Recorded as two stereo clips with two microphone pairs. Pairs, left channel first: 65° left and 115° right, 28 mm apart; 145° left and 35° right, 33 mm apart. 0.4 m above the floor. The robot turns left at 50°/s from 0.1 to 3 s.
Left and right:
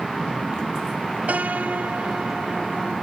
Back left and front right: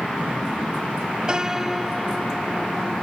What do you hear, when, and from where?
1.3 s a piano: 95° right; by 2.9 s straight behind